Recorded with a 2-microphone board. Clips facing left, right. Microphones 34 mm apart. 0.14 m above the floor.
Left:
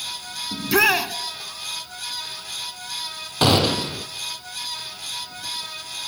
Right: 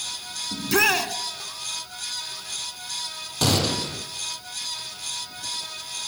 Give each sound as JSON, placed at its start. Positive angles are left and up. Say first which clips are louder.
{"t": 0.5, "sound": "a shout", "louder": "left 3 dB", "side_deg": 10, "distance_m": 1.2}
{"t": 3.4, "sound": "a gunshot", "louder": "left 5 dB", "side_deg": 30, "distance_m": 2.0}